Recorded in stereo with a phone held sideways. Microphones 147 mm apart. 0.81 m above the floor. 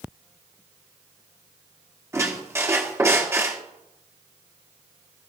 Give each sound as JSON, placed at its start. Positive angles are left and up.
{"t": 2.1, "sound": "a squeak", "side_deg": -20, "distance_m": 1.1}